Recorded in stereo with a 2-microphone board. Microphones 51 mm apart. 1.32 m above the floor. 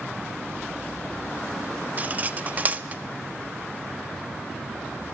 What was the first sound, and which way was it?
Cutlery clinking, 35° right (ahead or behind).